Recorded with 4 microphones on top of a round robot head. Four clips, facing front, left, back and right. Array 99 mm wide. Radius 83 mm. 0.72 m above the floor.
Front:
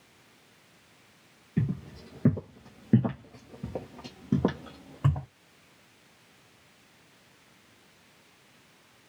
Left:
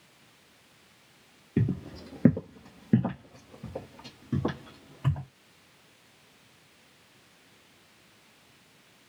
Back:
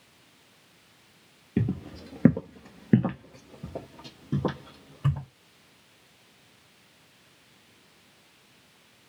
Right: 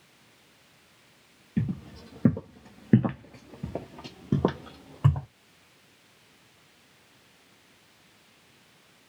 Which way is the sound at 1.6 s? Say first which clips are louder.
Left 2 dB, back 3 dB; 150° left.